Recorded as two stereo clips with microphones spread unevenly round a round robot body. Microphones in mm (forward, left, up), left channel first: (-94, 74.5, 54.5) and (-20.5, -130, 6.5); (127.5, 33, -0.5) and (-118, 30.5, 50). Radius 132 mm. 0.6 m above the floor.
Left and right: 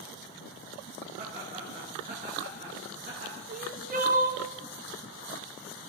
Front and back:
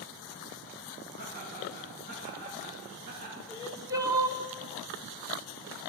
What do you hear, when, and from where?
1.2 s laughter: 130° right, 7.5 m
3.5 s crying: 95° right, 1.3 m